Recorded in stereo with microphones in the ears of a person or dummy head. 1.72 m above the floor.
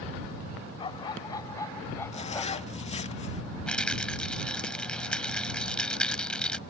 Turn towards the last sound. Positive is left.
turn(degrees=5)  # may be behind; listen again after turning